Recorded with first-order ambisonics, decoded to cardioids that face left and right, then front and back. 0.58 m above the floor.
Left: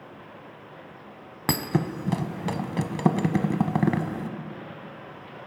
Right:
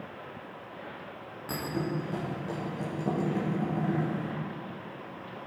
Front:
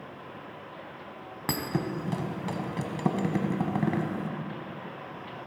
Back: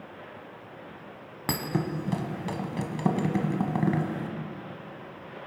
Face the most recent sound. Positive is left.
turn(degrees=95)